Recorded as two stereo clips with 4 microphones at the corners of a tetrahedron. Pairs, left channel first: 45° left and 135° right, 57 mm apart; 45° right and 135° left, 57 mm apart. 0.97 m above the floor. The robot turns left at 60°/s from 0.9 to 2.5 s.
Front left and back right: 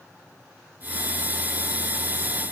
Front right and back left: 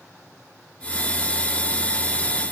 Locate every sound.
Only background noise.